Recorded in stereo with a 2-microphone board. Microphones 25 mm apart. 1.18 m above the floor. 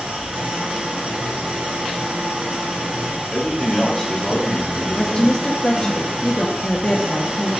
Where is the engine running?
75° right (ahead or behind), 2 m.